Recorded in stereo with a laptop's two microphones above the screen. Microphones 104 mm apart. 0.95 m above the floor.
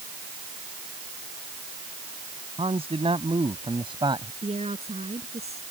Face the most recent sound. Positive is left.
turn(degrees=-80)